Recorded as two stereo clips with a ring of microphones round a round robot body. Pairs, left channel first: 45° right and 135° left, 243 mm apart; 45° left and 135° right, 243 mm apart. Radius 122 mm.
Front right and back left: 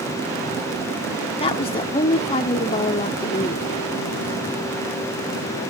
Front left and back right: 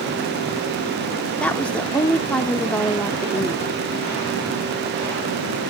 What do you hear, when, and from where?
1.4 s a woman speaking: 35° right, 0.8 m